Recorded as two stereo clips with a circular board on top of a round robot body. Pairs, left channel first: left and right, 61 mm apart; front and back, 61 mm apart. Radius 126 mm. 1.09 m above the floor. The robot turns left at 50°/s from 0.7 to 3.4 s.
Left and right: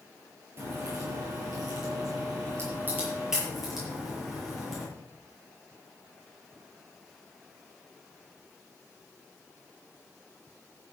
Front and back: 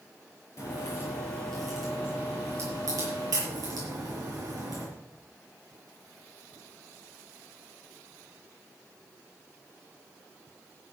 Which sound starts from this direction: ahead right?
A crack, at 0.6 s.